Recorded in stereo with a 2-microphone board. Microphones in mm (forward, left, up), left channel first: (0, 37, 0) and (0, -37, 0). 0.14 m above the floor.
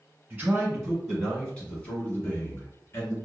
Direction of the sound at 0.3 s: 15° right (ahead or behind).